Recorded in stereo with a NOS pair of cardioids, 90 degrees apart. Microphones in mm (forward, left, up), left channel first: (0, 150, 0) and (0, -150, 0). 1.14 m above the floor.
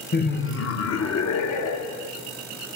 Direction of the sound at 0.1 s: 35° left.